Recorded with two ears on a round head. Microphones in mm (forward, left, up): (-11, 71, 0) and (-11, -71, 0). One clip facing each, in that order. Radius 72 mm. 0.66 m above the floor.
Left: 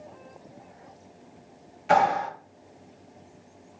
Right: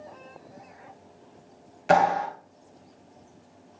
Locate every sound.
1.9 s a clap: 55° right (ahead or behind), 1.1 m